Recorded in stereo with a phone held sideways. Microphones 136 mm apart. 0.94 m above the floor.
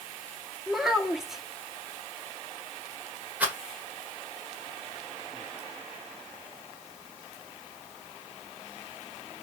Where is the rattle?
10° right (ahead or behind), 1.6 m.